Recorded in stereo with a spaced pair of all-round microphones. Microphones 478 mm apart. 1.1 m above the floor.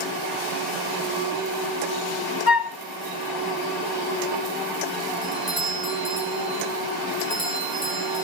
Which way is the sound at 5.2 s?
45° right (ahead or behind).